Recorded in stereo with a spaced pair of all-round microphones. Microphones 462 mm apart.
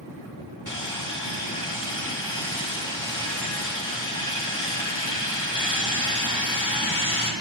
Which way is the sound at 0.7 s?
40° left (ahead or behind).